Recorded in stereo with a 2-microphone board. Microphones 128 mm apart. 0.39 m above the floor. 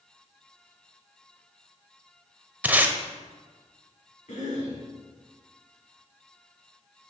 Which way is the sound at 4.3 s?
65° left (ahead or behind).